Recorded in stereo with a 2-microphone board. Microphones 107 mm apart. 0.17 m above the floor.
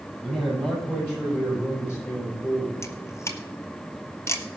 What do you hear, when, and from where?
0.2 s a man speaking: 10° left (ahead or behind), 4.5 m; by 2.7 s 25° left (ahead or behind), 6.5 m
2.8 s a camera shutter: 25° left (ahead or behind), 1.1 m